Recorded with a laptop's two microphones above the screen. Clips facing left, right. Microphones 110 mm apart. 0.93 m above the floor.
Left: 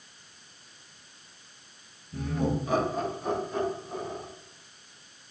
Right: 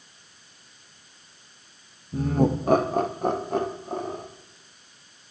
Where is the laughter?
35° right (ahead or behind), 0.8 m; by 4.2 s 60° right (ahead or behind), 2 m.